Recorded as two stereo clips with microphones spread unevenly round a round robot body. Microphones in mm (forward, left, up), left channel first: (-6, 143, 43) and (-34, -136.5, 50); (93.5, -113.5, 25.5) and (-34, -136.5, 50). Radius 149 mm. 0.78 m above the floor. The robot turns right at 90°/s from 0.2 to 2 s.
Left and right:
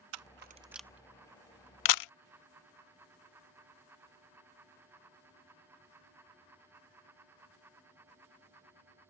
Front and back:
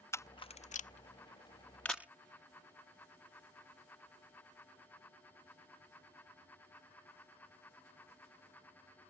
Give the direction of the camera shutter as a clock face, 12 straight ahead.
2 o'clock.